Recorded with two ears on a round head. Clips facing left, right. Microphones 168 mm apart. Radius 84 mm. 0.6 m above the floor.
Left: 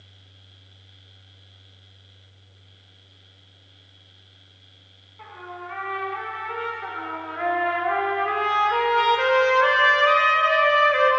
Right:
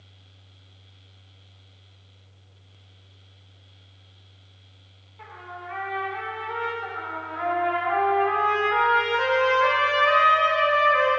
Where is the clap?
I don't hear a clap.